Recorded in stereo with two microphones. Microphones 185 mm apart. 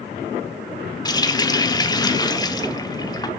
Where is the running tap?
20° left (ahead or behind), 1.2 m.